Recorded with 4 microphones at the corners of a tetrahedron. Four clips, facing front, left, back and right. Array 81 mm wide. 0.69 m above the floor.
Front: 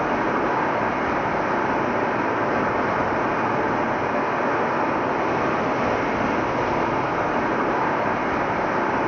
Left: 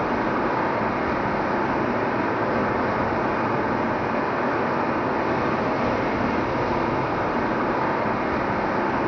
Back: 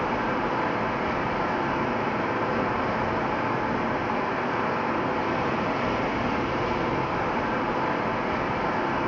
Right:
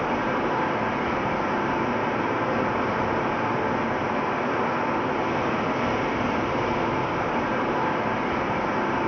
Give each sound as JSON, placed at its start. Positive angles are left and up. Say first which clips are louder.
{"t": 0.0, "sound": "running water", "louder": "left 2 dB, front 4 dB", "azimuth_deg": 30, "distance_m": 0.8}